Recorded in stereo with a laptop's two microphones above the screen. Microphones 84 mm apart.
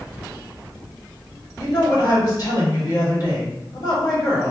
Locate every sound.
1.6 s a woman speaking: 45° left (ahead or behind), 2 m